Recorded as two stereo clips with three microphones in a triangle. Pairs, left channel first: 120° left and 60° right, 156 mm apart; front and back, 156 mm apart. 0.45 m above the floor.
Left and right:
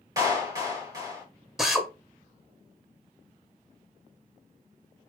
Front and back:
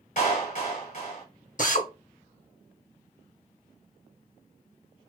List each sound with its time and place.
0.2 s a clap: straight ahead, 1.7 m
1.6 s a drill: 30° left, 0.7 m